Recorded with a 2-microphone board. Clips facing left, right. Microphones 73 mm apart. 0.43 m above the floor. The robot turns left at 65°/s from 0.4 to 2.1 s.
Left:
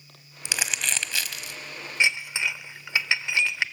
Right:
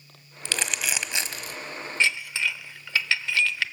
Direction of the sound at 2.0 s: 15° left (ahead or behind).